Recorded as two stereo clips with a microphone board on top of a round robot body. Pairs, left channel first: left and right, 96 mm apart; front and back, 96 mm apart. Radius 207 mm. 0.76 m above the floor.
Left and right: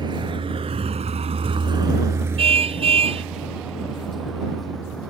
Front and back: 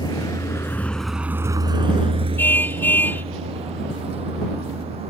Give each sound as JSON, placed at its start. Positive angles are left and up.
{"t": 0.0, "sound": "a vehicle", "azimuth_deg": -50}
{"t": 2.4, "sound": "a car horn", "azimuth_deg": -70}